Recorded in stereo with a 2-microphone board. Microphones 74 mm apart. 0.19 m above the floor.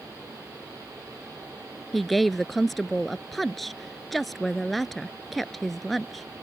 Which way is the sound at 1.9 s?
Centre (ahead or behind).